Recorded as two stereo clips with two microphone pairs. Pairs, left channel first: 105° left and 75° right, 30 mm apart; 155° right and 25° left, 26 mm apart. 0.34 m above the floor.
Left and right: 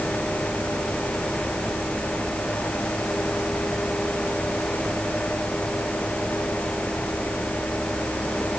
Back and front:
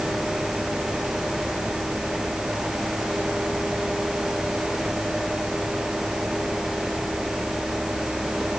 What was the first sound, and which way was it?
Only background noise.